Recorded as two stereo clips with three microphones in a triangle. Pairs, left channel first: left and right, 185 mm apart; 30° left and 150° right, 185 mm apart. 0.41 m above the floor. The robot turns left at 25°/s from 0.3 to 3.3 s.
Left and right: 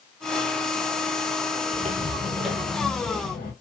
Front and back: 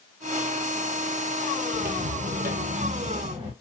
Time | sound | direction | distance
1.7 | footsteps | 125° right | 0.7 m